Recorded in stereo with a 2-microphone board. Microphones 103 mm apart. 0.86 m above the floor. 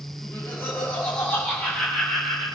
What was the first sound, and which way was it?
Laughter, 25° left (ahead or behind).